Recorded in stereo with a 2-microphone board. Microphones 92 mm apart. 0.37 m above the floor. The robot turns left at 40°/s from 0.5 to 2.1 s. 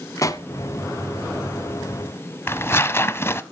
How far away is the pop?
About 0.7 m.